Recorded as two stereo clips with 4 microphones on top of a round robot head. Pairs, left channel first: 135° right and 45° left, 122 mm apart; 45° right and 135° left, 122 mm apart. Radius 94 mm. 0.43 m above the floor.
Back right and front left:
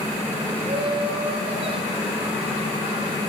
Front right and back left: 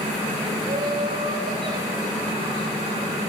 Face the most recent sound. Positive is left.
turn(degrees=95)